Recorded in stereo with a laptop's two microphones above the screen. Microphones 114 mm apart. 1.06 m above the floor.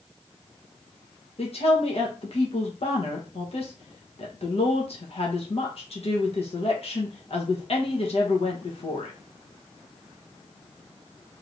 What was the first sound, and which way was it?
A woman speaking, 60° left (ahead or behind).